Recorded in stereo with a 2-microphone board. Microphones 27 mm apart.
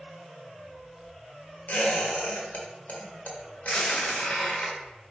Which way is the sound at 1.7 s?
70° left (ahead or behind).